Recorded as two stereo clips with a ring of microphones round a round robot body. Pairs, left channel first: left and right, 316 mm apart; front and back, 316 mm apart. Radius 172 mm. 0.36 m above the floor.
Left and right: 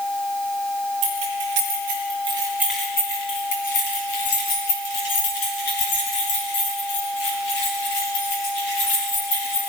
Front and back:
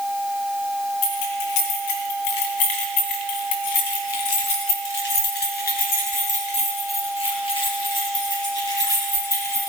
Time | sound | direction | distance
1.0 | keys jangling | 40° right | 3 m